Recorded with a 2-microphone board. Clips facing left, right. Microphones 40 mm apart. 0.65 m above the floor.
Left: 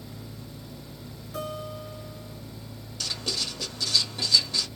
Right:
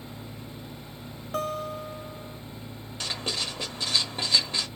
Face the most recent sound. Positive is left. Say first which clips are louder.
# right 1 dB
turn(degrees=-35)  # may be behind; listen again after turning